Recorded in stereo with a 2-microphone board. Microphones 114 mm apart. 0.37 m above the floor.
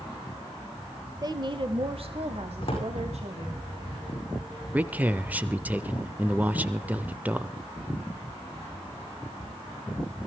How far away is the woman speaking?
About 1.1 m.